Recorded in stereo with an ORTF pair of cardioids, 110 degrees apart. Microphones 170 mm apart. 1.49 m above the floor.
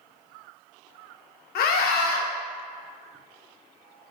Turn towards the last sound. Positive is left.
turn(degrees=70)